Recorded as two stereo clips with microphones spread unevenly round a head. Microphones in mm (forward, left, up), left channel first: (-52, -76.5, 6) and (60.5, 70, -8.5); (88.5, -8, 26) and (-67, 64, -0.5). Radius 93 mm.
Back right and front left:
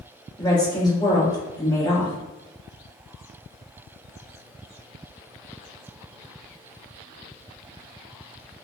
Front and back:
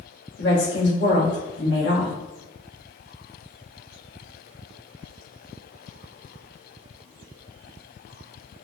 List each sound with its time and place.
0.4 s a woman speaking: 55° right, 1.9 m